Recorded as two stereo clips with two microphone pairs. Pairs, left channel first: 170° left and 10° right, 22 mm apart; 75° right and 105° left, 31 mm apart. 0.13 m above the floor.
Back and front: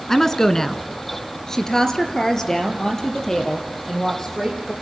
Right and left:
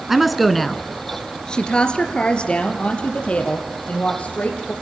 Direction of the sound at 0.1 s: 175° left.